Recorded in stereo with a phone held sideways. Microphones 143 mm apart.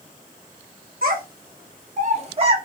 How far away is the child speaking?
About 0.8 m.